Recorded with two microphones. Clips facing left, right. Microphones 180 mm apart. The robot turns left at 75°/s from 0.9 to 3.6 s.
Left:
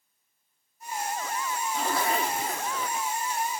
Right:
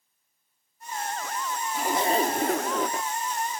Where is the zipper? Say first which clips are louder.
Right 4 dB; 5° right; by 3.1 s 105° right.